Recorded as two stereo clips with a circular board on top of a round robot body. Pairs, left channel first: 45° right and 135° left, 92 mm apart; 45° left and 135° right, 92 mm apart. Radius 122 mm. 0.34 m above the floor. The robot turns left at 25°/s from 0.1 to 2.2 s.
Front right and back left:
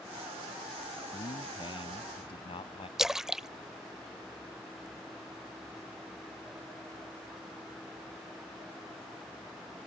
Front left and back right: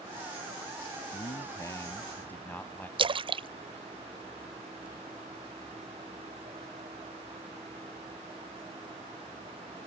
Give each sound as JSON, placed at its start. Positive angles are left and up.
{"t": 1.1, "sound": "a man speaking", "azimuth_deg": 0}
{"t": 3.0, "sound": "a splash", "azimuth_deg": -140}